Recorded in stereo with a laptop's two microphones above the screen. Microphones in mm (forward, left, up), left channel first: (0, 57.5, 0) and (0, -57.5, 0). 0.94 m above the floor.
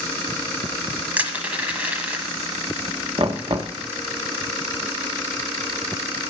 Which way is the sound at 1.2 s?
15° right (ahead or behind).